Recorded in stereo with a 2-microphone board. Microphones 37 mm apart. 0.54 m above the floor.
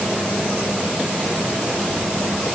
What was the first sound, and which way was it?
Only background noise.